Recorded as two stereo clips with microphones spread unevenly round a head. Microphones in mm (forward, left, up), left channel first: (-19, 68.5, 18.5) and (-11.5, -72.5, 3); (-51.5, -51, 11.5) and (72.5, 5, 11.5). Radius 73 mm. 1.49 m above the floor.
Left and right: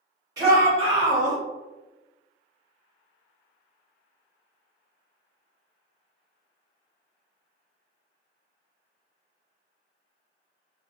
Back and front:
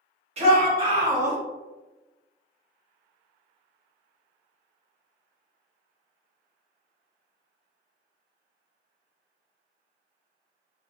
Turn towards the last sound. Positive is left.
turn(degrees=-50)